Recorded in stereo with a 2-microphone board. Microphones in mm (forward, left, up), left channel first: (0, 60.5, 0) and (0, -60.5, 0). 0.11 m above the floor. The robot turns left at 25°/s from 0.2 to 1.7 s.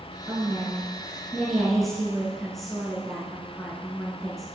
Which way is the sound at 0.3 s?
145° right.